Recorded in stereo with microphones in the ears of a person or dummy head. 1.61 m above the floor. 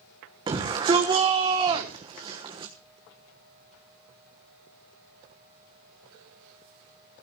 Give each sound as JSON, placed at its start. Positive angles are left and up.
{"t": 0.5, "sound": "a shout", "side_deg": -25, "distance_m": 1.4}